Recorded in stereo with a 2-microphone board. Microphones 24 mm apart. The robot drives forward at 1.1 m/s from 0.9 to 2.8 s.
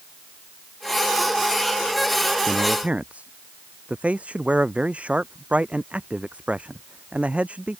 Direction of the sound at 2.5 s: 65° right (ahead or behind).